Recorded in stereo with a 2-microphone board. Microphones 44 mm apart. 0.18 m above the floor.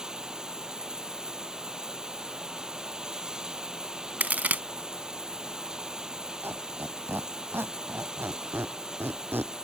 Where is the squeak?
60° right (ahead or behind).